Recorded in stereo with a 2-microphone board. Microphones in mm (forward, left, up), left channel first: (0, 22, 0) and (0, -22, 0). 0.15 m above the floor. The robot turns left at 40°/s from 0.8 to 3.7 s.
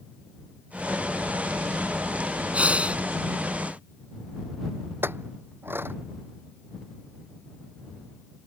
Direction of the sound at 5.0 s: 55° right (ahead or behind).